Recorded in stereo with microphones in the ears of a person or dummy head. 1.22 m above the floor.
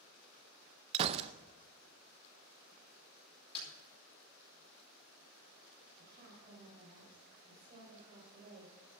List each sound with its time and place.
0.9 s a gunshot: 35° right (ahead or behind), 0.6 m
3.5 s a snare drum: 30° left (ahead or behind), 6 m
6.0 s a woman speaking: 40° right (ahead or behind), 5.5 m